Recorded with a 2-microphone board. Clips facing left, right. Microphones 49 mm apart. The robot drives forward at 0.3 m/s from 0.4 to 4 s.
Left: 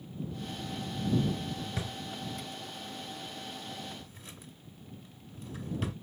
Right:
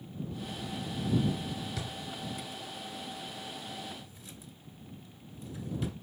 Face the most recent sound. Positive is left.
turn(degrees=45)  # may be behind; listen again after turning